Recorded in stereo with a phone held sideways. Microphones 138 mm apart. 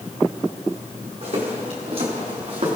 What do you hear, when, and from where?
1.2 s footsteps: 55° right (ahead or behind), 6 m